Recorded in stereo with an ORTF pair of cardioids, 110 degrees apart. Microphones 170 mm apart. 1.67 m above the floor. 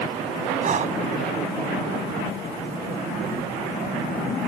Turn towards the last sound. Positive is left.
turn(degrees=-50)